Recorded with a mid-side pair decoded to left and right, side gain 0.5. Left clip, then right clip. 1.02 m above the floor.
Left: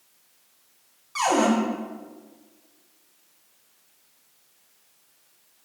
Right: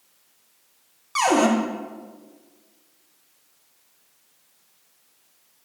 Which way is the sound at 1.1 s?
50° right.